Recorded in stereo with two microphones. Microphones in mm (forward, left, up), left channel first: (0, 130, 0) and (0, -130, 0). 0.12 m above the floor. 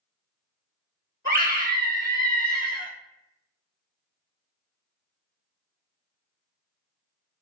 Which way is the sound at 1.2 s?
35° right (ahead or behind).